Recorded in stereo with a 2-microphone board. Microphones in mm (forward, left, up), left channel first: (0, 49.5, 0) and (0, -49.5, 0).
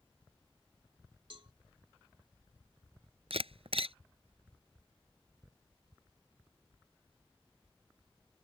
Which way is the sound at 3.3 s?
80° right.